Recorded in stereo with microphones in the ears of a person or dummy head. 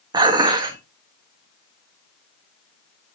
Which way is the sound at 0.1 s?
25° right (ahead or behind).